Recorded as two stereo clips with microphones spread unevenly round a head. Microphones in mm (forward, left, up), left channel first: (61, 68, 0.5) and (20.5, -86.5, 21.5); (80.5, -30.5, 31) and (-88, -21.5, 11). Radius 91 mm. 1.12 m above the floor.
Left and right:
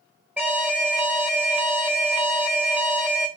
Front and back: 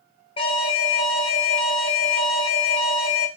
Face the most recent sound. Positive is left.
turn(degrees=-20)